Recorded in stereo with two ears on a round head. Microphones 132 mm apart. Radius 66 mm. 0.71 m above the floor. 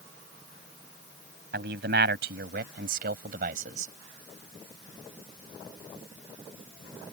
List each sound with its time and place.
1.5 s a man speaking: 75° right (ahead or behind); by 3.9 s 60° right (ahead or behind)